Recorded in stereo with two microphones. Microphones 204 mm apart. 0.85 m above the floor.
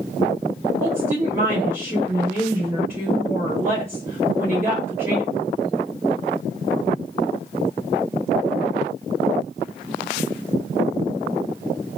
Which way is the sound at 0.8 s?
15° right (ahead or behind).